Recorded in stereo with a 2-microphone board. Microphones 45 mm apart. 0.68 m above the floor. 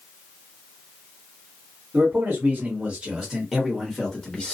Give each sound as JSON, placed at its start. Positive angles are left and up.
{"t": 1.9, "sound": "a man speaking", "side_deg": -35, "distance_m": 1.4}